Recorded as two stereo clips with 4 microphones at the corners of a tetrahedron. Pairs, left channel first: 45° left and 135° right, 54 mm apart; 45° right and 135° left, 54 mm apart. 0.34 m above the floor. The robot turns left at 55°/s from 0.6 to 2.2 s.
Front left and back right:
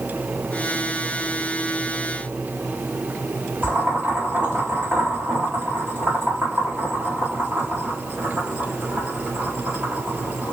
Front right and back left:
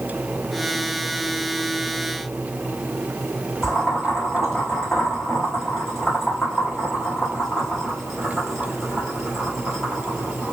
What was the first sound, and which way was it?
Boiling, 135° right.